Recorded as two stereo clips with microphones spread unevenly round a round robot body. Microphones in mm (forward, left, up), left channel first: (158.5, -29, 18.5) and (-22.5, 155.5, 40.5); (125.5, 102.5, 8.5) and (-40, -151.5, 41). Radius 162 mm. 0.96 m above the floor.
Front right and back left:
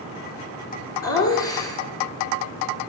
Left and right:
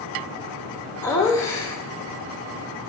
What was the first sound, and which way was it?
Laughter, 25° right.